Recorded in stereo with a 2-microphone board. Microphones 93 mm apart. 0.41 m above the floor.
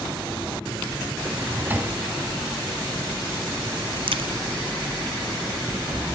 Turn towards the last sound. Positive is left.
turn(degrees=-70)  # may be behind; listen again after turning